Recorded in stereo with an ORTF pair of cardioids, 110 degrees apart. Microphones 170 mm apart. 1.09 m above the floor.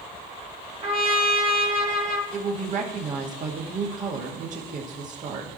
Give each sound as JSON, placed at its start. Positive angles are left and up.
{"t": 0.8, "sound": "a trumpet", "azimuth_deg": -40, "distance_m": 1.5}
{"t": 2.3, "sound": "a woman speaking", "azimuth_deg": -50, "distance_m": 1.8}